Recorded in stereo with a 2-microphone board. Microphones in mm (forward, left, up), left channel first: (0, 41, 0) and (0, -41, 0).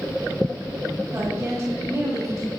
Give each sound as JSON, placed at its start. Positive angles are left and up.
{"t": 1.1, "sound": "a woman speaking", "side_deg": -35, "distance_m": 5.5}